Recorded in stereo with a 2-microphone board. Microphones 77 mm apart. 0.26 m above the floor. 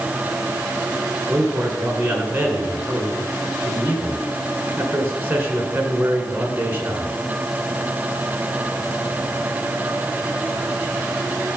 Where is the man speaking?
25° right (ahead or behind), 3.5 m.